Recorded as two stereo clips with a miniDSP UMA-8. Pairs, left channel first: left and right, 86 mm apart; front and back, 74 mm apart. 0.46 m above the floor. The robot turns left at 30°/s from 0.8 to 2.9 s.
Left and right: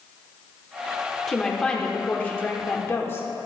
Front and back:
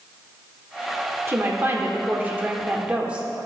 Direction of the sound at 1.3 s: 170° left.